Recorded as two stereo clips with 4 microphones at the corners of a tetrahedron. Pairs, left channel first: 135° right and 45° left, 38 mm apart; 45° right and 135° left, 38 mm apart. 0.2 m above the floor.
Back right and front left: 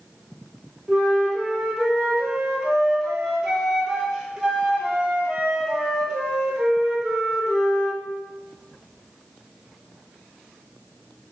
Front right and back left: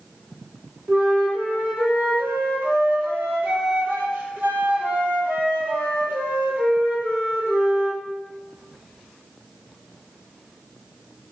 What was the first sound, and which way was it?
A flute, 120° left.